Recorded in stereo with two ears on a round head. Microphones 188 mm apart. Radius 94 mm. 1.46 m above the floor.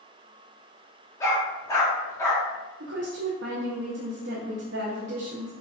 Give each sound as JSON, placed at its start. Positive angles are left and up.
{"t": 1.2, "sound": "a dog barking", "side_deg": 15, "distance_m": 1.0}
{"t": 2.8, "sound": "a woman speaking", "side_deg": -55, "distance_m": 0.7}